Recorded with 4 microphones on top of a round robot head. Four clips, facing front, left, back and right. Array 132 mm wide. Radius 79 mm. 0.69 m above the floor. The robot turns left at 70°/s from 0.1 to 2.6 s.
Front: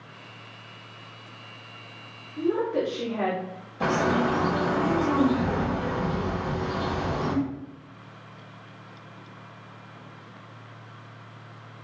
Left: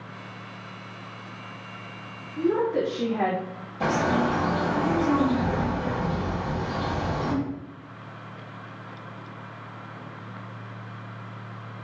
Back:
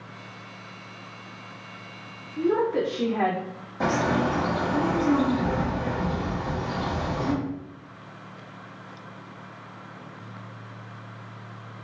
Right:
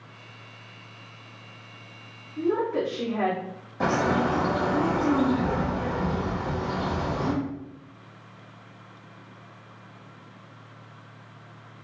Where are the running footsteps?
I don't hear running footsteps.